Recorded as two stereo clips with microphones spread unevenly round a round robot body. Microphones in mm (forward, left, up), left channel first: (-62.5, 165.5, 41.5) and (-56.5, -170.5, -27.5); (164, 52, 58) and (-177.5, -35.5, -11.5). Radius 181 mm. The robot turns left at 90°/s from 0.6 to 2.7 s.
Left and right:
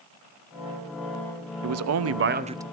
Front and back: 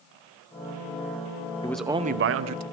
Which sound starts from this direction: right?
A man speaking, at 1.6 s.